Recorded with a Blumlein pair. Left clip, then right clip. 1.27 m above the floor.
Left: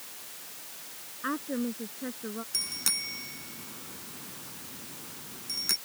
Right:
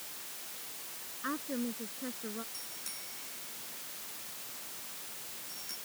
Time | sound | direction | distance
1.2 | a woman speaking | 15° left | ?
2.5 | a bicycle bell | 35° left | ?